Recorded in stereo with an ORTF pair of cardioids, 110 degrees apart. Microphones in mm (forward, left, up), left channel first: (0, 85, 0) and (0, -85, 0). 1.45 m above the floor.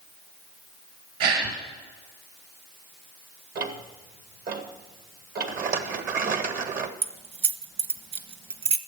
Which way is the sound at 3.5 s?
60° right.